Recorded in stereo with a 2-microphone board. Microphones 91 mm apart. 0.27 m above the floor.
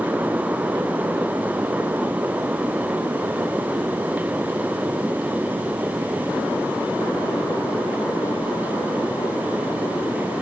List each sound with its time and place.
Only background noise.